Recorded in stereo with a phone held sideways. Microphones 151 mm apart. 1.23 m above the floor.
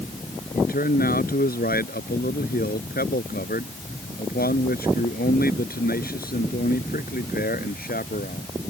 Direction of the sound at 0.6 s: 75° left (ahead or behind).